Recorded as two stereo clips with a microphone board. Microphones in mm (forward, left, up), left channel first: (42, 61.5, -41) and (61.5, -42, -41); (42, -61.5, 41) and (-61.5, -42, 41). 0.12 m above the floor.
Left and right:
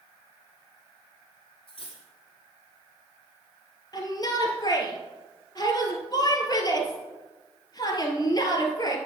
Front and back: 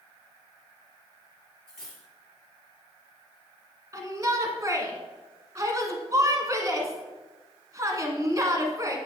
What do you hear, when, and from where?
1.7 s cutlery clinking: 75° left, 2.5 m
3.9 s a shout: 125° left, 1.4 m